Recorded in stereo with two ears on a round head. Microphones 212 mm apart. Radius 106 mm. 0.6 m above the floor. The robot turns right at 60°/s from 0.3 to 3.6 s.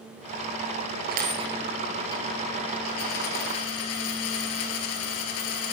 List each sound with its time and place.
1.1 s a dropped coin: 45° right, 2.0 m; by 5.8 s 105° left, 2.0 m